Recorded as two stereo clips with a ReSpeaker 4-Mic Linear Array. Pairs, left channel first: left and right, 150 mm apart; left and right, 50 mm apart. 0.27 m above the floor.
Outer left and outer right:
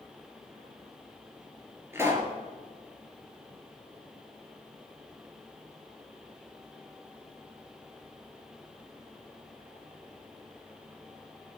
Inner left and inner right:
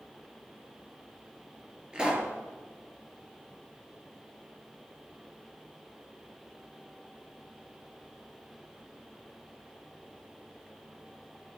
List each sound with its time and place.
1.9 s a pop: 15° right (ahead or behind), 3 m